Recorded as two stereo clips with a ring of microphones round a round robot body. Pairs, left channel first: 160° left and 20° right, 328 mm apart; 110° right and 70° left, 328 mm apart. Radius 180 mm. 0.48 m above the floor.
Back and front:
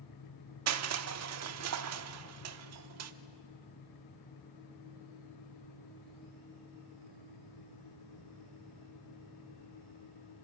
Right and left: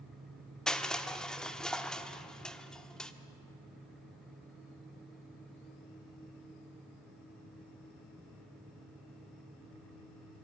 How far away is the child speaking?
I don't hear a child speaking.